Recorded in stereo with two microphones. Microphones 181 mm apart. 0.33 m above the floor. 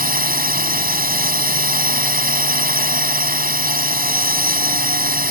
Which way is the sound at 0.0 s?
55° right (ahead or behind).